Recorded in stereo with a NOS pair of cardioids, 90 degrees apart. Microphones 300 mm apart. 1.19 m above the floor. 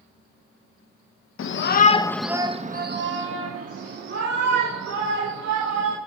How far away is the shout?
About 1.3 m.